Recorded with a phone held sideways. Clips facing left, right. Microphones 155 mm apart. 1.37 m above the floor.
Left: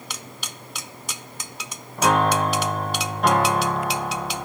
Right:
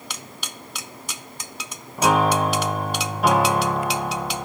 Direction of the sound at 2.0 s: 5° right (ahead or behind).